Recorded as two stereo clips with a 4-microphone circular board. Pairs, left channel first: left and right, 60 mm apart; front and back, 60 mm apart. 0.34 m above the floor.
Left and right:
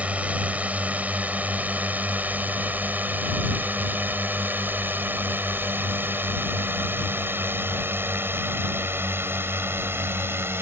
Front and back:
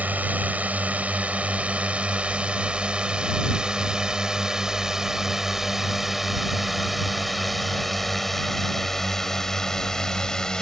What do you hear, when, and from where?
0.0 s a drone: 140° right; by 10.6 s 75° right